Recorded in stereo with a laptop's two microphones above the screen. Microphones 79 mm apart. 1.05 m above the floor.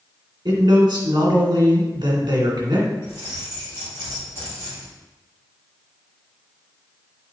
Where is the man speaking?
65° right (ahead or behind), 2 m.